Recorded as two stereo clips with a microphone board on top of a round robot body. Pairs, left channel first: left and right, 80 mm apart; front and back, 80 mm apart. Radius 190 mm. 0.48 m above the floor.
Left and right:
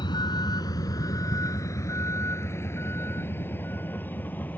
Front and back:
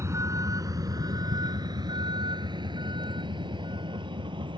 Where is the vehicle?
125° left; by 4.6 s 160° left.